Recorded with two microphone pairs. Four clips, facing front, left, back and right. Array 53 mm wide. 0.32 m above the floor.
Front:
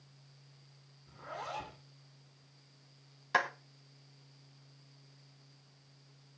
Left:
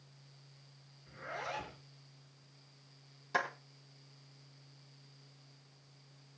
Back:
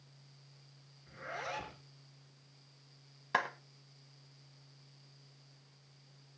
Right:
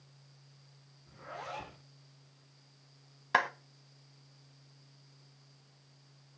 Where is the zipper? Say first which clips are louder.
Left 2 dB, back 1 dB; 145° left, 4 m.